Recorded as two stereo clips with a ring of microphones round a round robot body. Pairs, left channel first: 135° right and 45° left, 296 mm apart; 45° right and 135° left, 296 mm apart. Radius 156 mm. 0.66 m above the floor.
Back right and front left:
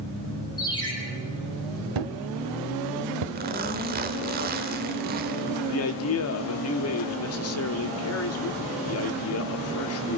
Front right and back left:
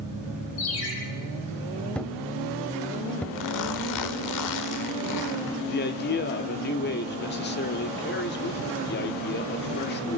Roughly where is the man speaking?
Right.